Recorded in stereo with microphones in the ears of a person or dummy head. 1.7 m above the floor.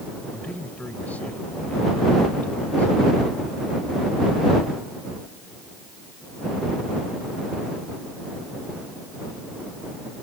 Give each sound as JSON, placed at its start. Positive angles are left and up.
{"t": 0.3, "sound": "a man speaking", "side_deg": 5}